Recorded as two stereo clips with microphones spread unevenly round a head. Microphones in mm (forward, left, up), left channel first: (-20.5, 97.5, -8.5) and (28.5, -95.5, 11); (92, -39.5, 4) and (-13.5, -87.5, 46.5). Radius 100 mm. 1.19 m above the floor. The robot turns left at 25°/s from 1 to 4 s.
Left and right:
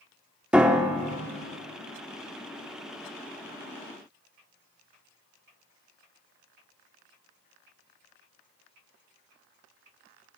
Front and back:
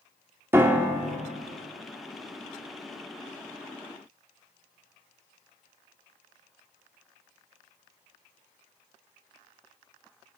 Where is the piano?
150° right, 0.8 m; by 1.2 s 155° right, 0.8 m.